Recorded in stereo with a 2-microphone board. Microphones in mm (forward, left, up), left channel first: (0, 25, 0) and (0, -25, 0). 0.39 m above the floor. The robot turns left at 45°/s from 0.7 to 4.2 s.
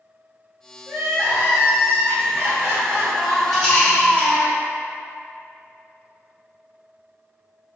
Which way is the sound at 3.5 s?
5° left (ahead or behind).